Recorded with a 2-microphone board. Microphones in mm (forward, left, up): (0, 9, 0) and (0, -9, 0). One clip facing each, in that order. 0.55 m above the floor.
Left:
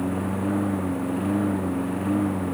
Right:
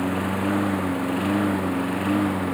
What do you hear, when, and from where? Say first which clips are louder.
0.0 s a lawn mower: right 2 dB; 60° right (ahead or behind); by 2.5 s 55° right (ahead or behind)